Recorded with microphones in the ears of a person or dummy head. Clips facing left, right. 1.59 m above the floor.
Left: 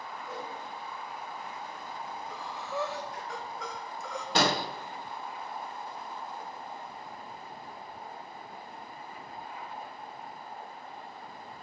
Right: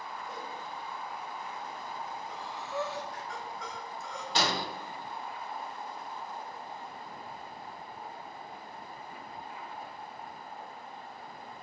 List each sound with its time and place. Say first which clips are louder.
0.2 s a whoosh: left 5 dB; 25° left (ahead or behind), 3 m
2.3 s breathing: left 1 dB; 75° left (ahead or behind), 1.2 m
4.3 s an explosion: left 4 dB; 55° left (ahead or behind), 0.9 m